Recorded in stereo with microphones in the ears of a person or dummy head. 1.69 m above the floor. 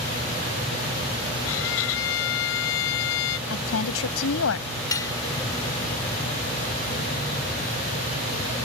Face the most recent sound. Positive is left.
turn(degrees=20)  # may be behind; listen again after turning